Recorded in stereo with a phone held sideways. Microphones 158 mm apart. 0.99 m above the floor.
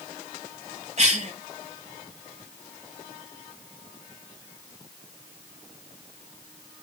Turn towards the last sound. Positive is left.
turn(degrees=-45)  # may be behind; listen again after turning